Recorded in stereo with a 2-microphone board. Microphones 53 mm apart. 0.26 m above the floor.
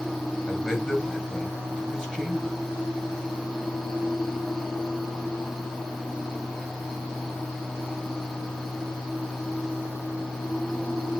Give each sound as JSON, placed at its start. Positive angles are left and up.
{"t": 0.5, "sound": "a man speaking", "side_deg": -5, "distance_m": 3.5}